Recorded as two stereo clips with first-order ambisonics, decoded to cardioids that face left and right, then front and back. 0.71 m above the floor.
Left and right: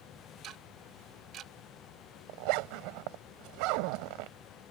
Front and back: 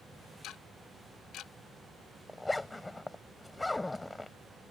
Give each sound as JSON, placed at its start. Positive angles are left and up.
{"t": 0.4, "sound": "ticking", "azimuth_deg": -45}
{"t": 2.3, "sound": "a zipper", "azimuth_deg": -90}